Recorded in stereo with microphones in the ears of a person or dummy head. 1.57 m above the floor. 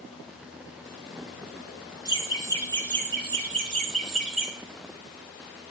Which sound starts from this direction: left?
Laughter, at 2.0 s.